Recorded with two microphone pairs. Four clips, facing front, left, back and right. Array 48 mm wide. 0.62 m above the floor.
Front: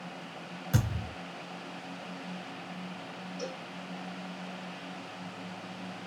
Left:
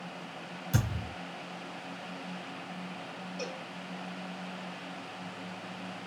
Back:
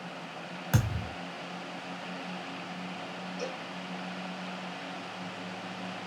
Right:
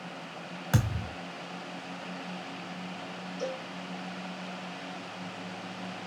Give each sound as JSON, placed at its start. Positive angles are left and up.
{"t": 0.7, "sound": "a thud", "azimuth_deg": -135, "distance_m": 2.5}
{"t": 3.4, "sound": "a cowbell", "azimuth_deg": 100, "distance_m": 3.0}